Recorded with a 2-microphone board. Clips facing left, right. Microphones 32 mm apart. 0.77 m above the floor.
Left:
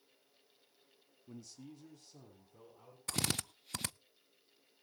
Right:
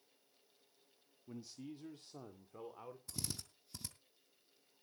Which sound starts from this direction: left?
A drill, at 3.1 s.